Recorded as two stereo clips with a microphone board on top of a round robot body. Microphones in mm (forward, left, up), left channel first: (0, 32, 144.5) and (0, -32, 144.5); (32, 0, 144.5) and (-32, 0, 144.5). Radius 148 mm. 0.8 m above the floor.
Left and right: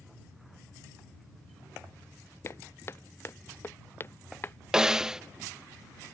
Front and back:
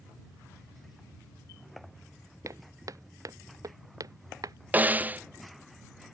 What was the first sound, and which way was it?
Footsteps, 140° left.